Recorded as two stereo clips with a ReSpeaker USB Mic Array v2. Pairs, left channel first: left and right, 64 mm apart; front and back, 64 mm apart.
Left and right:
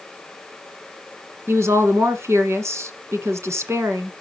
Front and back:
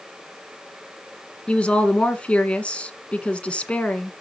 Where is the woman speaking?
65° right, 1.8 m.